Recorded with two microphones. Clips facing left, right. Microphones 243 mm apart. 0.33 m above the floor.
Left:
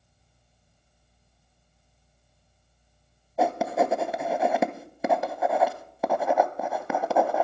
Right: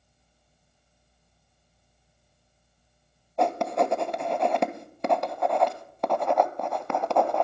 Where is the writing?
5° left (ahead or behind), 0.6 m.